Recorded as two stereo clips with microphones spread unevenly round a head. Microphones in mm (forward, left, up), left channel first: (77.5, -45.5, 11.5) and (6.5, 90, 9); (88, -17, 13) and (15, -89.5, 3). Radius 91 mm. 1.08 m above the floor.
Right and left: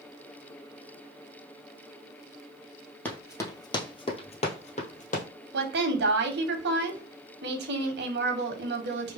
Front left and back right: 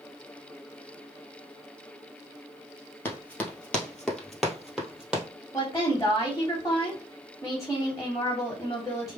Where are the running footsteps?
5° left, 1.2 m; by 5.2 s 50° right, 1.7 m.